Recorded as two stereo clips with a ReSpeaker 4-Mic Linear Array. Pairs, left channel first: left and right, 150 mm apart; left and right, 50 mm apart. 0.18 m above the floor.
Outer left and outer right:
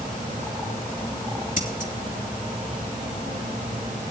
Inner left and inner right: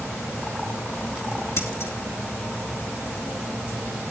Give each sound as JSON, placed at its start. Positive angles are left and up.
{"t": 1.6, "sound": "scissors", "side_deg": 55, "distance_m": 2.5}